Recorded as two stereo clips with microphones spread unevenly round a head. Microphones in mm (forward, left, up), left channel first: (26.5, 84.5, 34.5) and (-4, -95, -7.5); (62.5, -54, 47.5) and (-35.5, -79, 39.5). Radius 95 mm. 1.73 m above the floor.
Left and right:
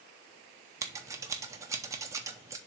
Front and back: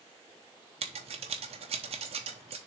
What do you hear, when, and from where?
0.8 s scissors: straight behind, 0.8 m